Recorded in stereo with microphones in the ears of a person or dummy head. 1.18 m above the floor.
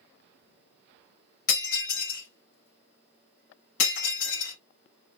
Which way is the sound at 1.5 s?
70° left (ahead or behind).